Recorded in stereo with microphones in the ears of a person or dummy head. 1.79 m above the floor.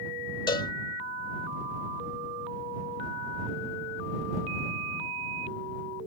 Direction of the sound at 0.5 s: 30° left (ahead or behind).